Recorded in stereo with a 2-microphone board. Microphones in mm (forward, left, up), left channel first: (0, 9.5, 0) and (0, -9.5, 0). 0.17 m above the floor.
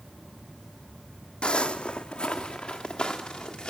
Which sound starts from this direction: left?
Footsteps, at 1.4 s.